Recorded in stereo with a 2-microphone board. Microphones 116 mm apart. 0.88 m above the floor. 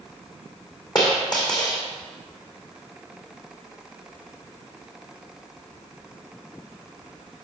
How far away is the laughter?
No laughter in this recording.